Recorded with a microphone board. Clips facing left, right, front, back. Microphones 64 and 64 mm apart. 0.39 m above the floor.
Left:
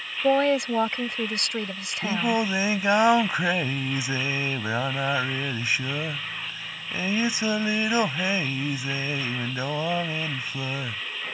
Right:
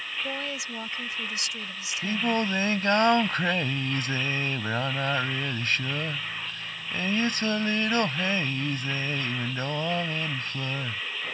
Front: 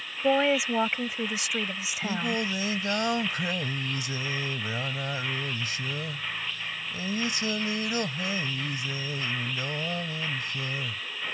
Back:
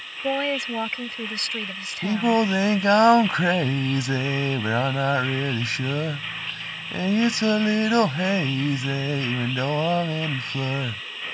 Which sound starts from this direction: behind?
Singing, at 2.0 s.